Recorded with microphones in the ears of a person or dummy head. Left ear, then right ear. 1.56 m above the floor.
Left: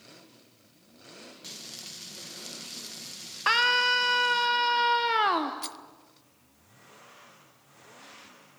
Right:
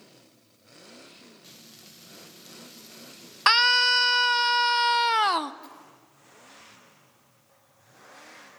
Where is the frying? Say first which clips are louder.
Left 12 dB; 30° left (ahead or behind), 2 m.